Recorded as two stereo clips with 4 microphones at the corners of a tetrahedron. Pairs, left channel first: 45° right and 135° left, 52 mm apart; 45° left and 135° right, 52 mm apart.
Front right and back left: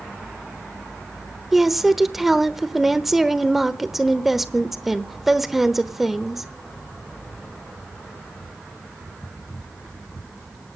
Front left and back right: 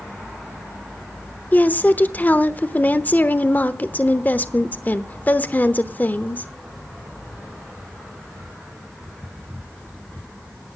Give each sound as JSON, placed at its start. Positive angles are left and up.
{"t": 1.5, "sound": "a woman speaking", "azimuth_deg": 50, "distance_m": 0.9}